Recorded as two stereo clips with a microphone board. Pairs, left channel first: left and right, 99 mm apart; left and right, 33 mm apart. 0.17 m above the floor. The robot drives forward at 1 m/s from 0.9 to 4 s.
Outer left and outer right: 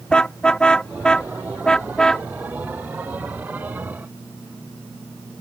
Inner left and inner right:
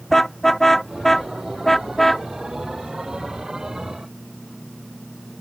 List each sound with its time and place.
0.1 s a car horn: 10° left (ahead or behind); by 2.3 s 5° left (ahead or behind)